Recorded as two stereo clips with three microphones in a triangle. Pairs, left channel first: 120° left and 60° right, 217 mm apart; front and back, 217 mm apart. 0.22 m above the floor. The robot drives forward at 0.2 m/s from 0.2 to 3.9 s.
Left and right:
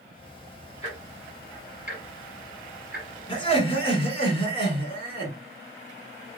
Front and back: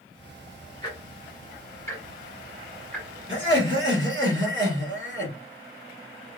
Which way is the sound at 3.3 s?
Straight behind.